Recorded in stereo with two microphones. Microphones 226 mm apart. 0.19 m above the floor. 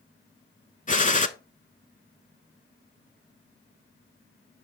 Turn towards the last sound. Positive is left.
turn(degrees=35)  # may be behind; listen again after turning